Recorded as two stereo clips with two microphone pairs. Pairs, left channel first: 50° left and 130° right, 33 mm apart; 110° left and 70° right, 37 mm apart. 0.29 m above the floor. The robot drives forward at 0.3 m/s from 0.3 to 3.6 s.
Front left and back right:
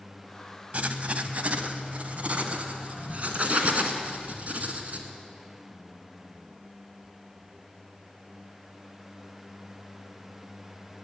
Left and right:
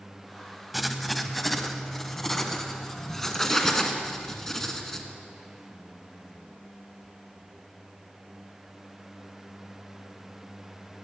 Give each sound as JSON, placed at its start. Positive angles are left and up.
{"t": 0.7, "sound": "writing", "azimuth_deg": -155, "distance_m": 0.7}